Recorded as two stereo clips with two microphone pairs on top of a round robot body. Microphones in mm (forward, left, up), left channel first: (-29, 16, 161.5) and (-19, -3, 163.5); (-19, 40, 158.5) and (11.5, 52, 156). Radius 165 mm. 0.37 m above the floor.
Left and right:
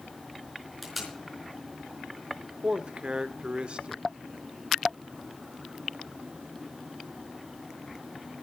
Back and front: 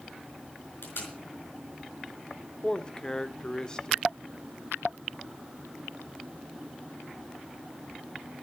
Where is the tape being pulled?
155° right, 4.5 m.